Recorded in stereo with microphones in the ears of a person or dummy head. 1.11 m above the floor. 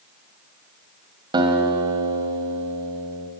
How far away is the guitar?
About 1.6 m.